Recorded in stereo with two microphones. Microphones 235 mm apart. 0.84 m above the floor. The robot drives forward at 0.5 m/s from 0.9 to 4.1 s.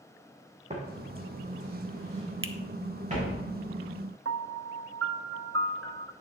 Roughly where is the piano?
Right.